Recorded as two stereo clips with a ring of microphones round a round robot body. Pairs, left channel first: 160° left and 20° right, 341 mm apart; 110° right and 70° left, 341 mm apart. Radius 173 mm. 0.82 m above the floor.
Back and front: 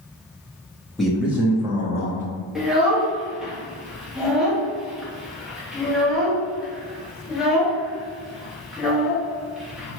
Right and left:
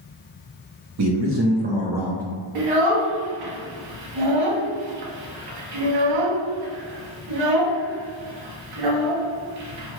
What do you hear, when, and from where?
1.0 s a man speaking: 70° left, 1.0 m; by 2.2 s 35° right, 0.7 m
2.5 s a child speaking: 65° left, 0.9 m